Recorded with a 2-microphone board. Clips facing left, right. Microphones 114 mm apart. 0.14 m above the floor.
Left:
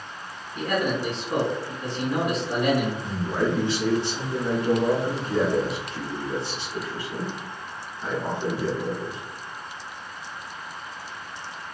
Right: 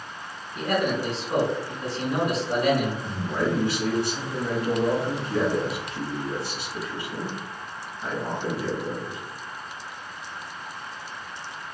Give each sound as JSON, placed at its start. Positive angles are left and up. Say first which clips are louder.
{"t": 0.6, "sound": "a man speaking", "louder": "right 1 dB", "side_deg": -5, "distance_m": 1.7}
{"t": 3.0, "sound": "a man speaking", "louder": "left 1 dB", "side_deg": 25, "distance_m": 1.5}